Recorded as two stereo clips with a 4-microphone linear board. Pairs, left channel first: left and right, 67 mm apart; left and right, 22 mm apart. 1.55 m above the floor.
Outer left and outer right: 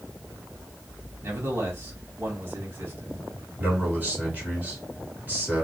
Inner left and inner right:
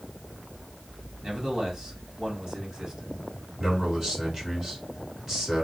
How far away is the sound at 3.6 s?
About 3 m.